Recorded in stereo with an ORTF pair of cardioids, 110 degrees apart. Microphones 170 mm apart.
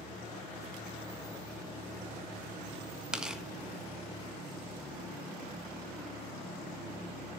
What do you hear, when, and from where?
3.1 s tearing paper: 5° right, 1.5 m